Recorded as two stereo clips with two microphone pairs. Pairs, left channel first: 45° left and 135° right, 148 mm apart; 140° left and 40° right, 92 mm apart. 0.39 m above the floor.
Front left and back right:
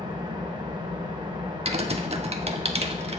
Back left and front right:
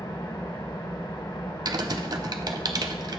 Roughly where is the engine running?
Behind.